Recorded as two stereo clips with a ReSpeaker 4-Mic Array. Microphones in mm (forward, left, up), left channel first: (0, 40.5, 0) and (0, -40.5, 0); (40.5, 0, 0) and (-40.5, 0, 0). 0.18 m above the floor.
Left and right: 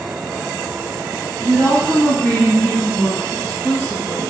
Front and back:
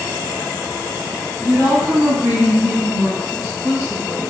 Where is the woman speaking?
140° left, 1.9 m.